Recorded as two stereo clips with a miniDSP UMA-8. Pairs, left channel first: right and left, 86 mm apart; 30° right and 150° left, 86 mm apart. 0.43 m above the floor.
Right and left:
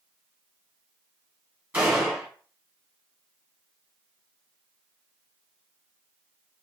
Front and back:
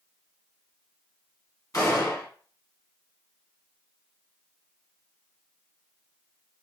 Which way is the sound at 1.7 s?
20° left.